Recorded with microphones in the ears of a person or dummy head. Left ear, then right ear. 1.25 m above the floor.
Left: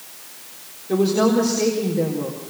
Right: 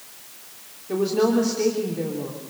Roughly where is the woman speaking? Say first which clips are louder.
Left 3 dB; centre.